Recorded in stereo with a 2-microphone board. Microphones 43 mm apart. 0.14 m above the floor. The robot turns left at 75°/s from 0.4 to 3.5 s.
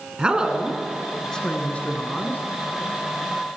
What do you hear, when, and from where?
0.2 s a woman speaking: 140° right, 1.2 m; by 2.4 s 70° left, 1.2 m